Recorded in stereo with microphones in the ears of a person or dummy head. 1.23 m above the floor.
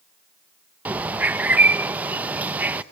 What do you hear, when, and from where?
0.8 s a bird: 5° right (ahead or behind), 0.8 m